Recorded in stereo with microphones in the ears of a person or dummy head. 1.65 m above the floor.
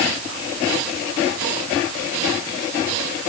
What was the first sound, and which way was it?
Only background noise.